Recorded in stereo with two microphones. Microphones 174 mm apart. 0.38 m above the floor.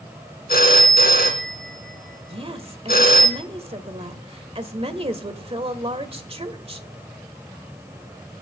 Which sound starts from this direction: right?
A woman speaking, at 2.3 s.